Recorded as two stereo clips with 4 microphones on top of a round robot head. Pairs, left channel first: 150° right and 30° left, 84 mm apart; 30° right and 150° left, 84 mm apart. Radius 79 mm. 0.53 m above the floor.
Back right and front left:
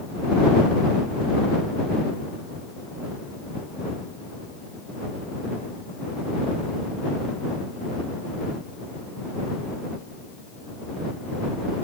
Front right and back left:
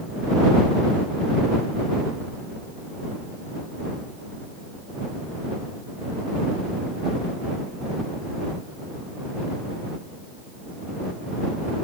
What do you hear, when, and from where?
Only background noise.